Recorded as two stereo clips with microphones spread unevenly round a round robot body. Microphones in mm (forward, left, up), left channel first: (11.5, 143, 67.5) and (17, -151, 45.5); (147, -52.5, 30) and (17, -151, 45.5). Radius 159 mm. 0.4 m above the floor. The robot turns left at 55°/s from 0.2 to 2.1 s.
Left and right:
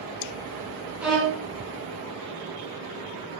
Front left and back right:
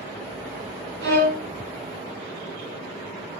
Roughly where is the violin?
Behind.